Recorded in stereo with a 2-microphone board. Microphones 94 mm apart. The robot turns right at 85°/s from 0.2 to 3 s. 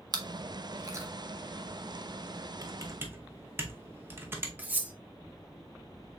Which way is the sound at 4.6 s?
15° right (ahead or behind).